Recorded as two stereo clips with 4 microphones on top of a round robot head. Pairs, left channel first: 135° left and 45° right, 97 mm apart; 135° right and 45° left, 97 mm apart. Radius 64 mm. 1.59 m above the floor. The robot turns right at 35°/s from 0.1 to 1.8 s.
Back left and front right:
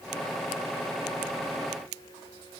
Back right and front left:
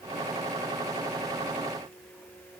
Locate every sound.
Only background noise.